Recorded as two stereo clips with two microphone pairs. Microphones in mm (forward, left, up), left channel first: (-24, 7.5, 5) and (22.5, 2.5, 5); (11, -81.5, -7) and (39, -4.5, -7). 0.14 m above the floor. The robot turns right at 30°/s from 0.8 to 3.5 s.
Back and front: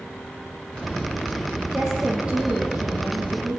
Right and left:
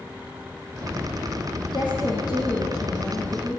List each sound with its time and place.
1.7 s a woman speaking: 90° right, 4 m; by 3.6 s 40° right, 4 m